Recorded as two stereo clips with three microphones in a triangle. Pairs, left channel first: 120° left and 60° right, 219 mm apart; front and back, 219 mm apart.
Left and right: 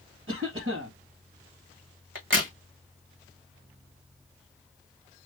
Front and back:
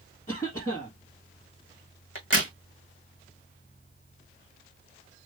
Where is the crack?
30° right, 2 m.